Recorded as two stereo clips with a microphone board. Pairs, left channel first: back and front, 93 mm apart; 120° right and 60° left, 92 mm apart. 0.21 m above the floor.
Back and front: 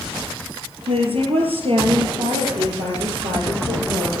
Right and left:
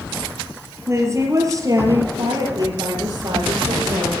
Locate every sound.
0.9 s a woman speaking: straight ahead, 4 m; by 4.1 s 25° left, 5 m